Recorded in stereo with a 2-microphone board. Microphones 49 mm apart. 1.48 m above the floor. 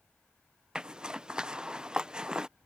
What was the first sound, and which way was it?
A zipper, 20° right (ahead or behind).